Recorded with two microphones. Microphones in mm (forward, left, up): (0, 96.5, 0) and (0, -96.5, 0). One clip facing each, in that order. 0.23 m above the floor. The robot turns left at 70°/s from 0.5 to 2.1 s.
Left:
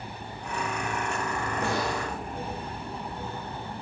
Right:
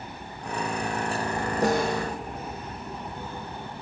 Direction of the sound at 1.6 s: 35° right.